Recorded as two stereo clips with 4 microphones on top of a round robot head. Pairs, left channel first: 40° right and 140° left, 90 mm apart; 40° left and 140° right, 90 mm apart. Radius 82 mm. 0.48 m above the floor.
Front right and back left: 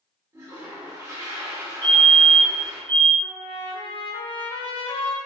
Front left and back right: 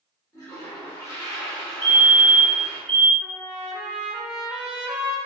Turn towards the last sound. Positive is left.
turn(degrees=-55)